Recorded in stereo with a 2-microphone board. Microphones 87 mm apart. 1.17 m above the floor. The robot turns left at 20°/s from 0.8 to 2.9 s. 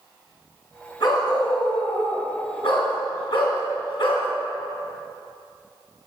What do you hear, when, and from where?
1.0 s a dog barking: 125° left, 2.5 m; by 4.3 s 85° left, 2.5 m